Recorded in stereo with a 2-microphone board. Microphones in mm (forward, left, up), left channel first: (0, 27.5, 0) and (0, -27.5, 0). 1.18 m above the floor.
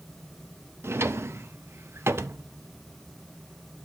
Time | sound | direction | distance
0.8 | a drawer | 50° right (ahead or behind) | 0.5 m